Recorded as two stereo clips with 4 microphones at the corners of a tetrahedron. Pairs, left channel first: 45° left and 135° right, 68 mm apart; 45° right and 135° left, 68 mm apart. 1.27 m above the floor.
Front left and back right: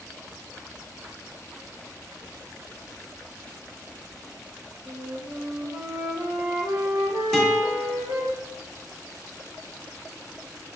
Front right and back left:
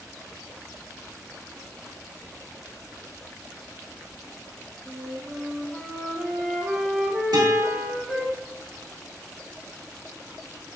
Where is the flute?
140° right, 1.6 m.